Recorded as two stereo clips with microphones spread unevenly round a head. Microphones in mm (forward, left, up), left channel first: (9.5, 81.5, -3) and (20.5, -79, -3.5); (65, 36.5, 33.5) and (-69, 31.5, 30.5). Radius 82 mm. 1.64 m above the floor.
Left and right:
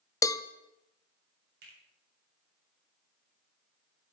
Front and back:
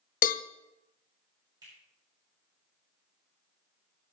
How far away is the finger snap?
About 7 m.